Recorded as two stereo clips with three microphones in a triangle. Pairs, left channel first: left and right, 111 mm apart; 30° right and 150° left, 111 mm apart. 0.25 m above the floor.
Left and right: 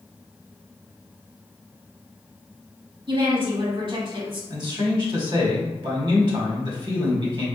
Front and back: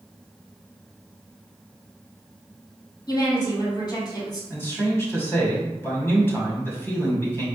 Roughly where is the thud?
I don't hear a thud.